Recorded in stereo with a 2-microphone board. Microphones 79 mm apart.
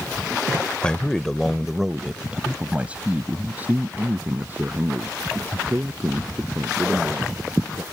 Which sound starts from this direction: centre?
A man speaking, at 0.8 s.